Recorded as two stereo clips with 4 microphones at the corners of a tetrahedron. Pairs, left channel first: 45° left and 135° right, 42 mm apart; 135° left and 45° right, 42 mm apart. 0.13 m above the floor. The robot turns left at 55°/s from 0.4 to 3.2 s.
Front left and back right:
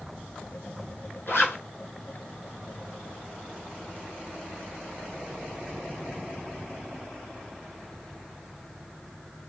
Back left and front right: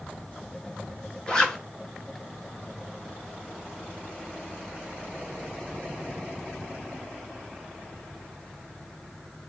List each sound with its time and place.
1.3 s a zipper: 65° left, 0.8 m; by 1.6 s 50° left, 0.8 m